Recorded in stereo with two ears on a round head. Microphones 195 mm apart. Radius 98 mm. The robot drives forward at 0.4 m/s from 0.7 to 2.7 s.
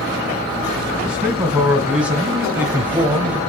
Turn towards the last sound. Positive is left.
turn(degrees=-5)  # may be behind; listen again after turning